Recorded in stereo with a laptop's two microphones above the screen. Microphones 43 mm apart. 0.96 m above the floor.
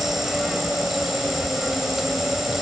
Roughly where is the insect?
Centre.